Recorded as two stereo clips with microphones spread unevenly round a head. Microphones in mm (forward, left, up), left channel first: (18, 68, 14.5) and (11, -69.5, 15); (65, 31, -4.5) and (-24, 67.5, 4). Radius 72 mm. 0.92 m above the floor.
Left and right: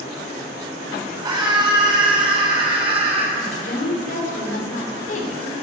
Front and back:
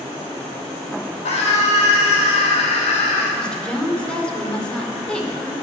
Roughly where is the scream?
Ahead right.